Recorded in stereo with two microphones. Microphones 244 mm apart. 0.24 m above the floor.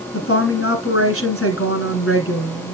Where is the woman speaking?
65° left (ahead or behind), 2 m.